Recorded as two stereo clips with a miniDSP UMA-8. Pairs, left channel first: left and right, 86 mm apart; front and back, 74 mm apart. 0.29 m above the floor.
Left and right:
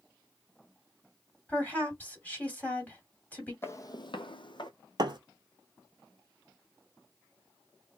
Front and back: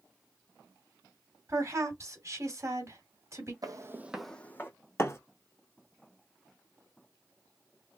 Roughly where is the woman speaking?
Behind left.